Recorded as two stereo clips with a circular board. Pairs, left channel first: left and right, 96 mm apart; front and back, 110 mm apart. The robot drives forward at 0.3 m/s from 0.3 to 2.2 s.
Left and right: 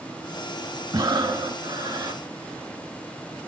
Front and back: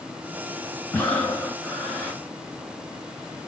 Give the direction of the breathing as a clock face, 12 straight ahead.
2 o'clock.